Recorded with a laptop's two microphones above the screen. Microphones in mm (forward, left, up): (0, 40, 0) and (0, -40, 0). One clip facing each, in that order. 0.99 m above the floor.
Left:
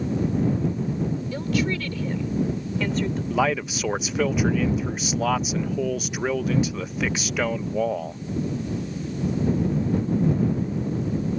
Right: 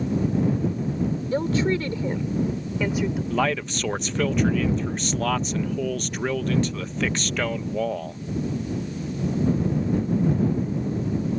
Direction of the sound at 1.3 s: 35° right (ahead or behind).